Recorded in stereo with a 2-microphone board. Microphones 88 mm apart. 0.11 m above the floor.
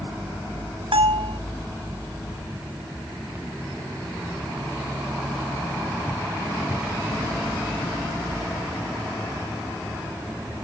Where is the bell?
75° right (ahead or behind).